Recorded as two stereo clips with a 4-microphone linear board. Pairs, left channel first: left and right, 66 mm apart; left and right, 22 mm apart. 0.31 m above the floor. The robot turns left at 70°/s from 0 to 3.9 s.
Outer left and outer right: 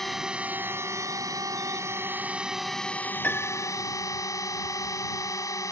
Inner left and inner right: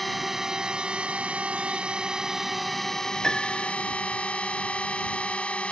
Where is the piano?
160° left; by 3.8 s 125° left.